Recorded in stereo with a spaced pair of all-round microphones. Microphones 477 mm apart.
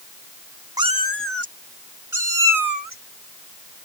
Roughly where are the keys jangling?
No keys jangling in this recording.